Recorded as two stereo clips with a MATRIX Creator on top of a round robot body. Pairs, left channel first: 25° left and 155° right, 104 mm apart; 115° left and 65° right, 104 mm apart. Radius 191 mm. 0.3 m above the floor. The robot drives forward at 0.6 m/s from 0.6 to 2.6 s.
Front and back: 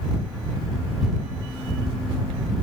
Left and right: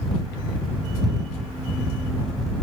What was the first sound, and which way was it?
Only background noise.